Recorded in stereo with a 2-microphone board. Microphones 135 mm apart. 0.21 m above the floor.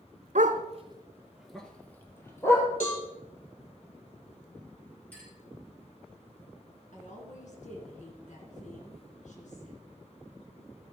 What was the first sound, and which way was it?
A dog barking, 70° right (ahead or behind).